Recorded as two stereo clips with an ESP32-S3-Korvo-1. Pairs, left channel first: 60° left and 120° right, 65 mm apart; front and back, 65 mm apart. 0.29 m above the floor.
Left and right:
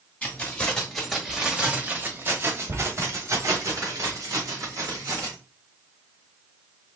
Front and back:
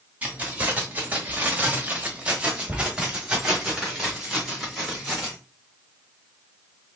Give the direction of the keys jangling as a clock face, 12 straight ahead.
8 o'clock.